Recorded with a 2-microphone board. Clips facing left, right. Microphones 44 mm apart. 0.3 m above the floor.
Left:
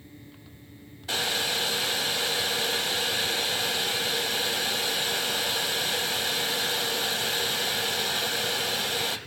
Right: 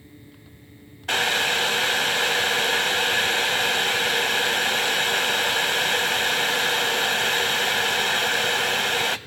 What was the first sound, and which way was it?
Boiling, 55° right (ahead or behind).